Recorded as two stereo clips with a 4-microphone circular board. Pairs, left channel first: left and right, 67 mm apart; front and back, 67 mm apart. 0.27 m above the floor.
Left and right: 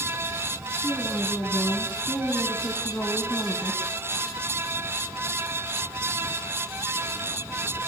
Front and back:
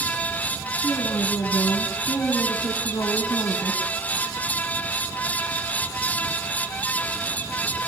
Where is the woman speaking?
20° left, 2.5 m.